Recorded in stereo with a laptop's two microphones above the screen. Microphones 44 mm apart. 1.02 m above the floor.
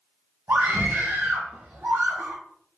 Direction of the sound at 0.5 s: 45° right (ahead or behind).